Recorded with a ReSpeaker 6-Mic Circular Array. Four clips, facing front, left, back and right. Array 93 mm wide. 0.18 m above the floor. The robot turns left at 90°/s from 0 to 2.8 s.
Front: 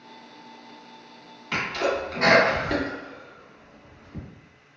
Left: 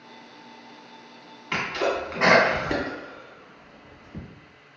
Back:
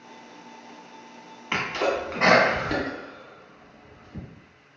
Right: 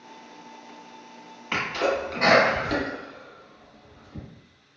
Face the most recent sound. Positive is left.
turn(degrees=85)